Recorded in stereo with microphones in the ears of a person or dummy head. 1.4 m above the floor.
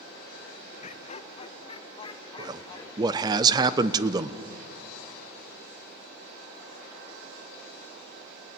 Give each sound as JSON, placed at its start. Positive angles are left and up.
{"t": 0.8, "sound": "laughter", "side_deg": 40, "distance_m": 1.1}
{"t": 2.4, "sound": "a man speaking", "side_deg": -25, "distance_m": 0.9}